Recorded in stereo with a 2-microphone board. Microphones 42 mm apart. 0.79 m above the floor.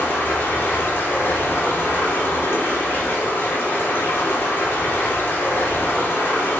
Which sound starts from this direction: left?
Running water, at 0.0 s.